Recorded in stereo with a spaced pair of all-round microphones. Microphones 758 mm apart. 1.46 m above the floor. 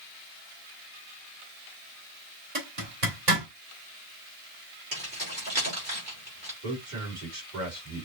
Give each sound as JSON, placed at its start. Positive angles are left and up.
{"t": 2.5, "sound": "a zipper", "side_deg": -55, "distance_m": 2.0}
{"t": 4.9, "sound": "keys jangling", "side_deg": -75, "distance_m": 4.0}
{"t": 6.6, "sound": "a man speaking", "side_deg": -70, "distance_m": 3.0}